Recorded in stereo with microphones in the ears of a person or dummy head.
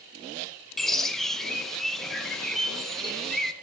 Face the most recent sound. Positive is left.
turn(degrees=5)  # may be behind; listen again after turning